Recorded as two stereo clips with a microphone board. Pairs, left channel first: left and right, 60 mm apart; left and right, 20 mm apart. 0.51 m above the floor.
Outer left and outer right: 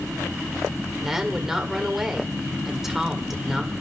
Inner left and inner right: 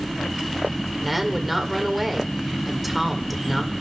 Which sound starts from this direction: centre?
A woman speaking, at 1.0 s.